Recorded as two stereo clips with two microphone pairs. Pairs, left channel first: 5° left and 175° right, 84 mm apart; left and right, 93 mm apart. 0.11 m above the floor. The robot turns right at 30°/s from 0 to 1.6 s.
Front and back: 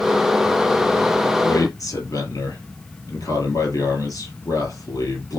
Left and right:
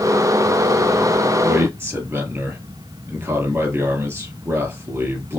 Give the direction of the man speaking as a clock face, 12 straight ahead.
1 o'clock.